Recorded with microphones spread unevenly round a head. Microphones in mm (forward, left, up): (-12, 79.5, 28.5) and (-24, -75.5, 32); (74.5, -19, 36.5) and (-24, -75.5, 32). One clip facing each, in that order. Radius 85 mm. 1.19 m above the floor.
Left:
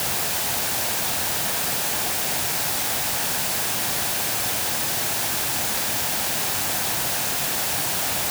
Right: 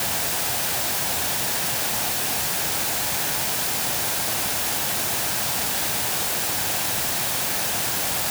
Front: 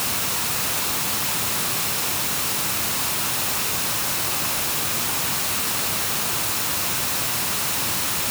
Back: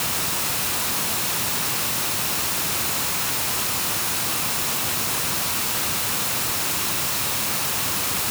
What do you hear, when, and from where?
Only background noise.